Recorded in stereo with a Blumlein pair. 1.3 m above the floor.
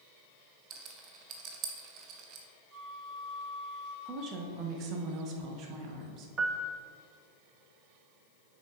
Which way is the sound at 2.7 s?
10° right.